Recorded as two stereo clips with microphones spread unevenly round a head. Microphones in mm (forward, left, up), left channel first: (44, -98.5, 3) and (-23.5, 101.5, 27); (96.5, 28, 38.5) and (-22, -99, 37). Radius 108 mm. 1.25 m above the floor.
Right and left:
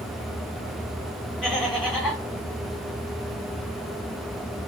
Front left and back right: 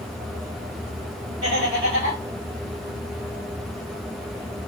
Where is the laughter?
155° right, 2.5 m.